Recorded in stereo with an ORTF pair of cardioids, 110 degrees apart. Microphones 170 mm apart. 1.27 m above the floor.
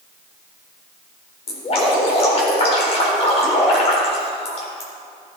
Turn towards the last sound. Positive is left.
turn(degrees=40)